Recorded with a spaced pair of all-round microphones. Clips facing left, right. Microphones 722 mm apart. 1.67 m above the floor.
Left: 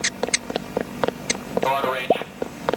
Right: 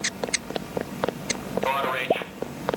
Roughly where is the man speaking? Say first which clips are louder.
Left 4 dB; left.